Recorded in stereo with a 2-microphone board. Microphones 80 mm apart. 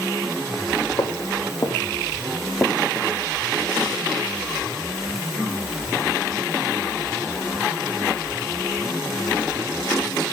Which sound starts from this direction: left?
Footsteps, at 1.0 s.